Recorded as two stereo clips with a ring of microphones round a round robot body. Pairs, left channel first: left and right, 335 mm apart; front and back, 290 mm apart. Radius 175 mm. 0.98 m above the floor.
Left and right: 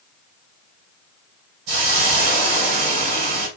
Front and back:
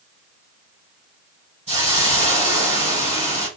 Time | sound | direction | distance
1.7 | a hiss | 105° right | 2 m